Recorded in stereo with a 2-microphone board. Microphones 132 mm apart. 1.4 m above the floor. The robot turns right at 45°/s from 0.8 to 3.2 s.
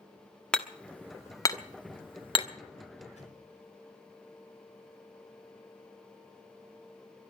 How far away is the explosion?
About 4 m.